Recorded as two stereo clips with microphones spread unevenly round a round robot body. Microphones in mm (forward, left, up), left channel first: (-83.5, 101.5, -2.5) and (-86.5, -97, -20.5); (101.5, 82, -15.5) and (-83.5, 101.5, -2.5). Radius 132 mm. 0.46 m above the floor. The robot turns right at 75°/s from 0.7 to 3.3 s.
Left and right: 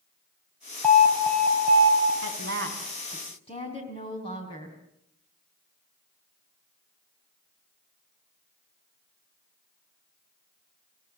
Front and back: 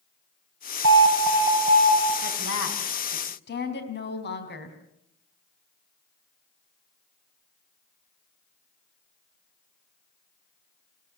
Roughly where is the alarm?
Behind.